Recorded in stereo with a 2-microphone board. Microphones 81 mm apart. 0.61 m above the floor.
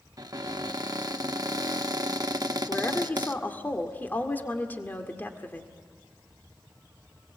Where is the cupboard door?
50° right (ahead or behind), 0.9 m.